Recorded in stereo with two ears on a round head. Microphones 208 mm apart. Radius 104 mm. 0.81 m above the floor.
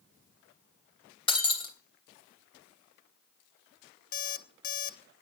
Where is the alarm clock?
40° left (ahead or behind), 1.0 m.